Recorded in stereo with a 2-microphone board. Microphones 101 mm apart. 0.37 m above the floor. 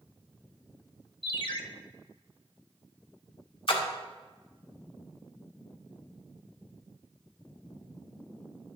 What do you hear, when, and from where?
1.2 s a ringtone: 50° left (ahead or behind), 0.6 m
3.7 s a splash: 60° left (ahead or behind), 1.1 m